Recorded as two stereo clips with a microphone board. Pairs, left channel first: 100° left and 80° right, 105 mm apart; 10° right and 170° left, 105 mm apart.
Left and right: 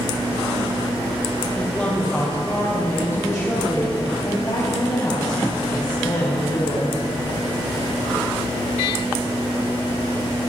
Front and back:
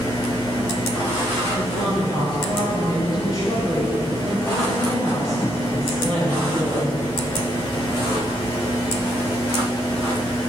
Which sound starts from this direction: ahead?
A woman speaking, at 1.6 s.